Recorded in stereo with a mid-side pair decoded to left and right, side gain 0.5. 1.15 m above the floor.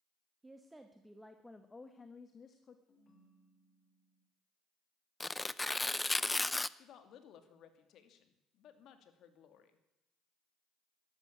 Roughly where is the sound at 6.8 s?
Ahead left.